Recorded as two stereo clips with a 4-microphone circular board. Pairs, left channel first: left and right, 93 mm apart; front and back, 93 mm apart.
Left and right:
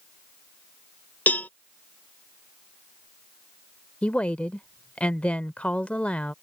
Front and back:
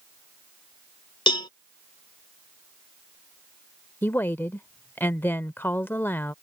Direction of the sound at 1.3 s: 20° left.